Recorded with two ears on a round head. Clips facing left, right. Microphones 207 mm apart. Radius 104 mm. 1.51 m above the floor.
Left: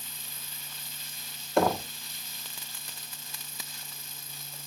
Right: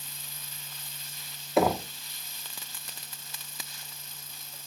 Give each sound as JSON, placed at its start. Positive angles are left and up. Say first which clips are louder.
{"t": 1.6, "sound": "knocking", "louder": "right 1 dB", "side_deg": -5, "distance_m": 1.2}